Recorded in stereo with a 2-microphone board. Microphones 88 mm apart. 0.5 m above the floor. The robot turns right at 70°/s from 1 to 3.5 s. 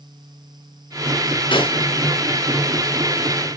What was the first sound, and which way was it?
A snare drum, 70° left (ahead or behind).